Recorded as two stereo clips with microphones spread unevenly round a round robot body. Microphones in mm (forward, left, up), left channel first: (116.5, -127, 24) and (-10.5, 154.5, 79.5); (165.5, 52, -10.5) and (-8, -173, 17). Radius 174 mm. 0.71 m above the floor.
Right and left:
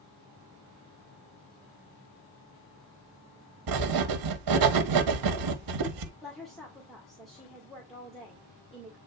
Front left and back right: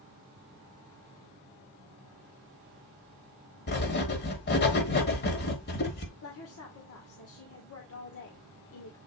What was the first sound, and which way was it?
Writing, 105° left.